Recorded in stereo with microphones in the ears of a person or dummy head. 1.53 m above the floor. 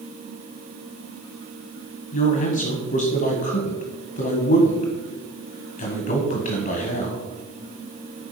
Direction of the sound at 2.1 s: 50° left (ahead or behind).